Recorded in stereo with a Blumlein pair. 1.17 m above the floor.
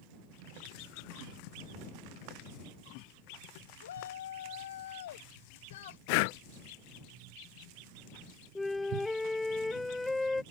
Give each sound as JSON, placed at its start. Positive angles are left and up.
{"t": 3.8, "sound": "a shout", "azimuth_deg": 65}
{"t": 6.1, "sound": "breathing", "azimuth_deg": 45}
{"t": 8.6, "sound": "a flute", "azimuth_deg": 5}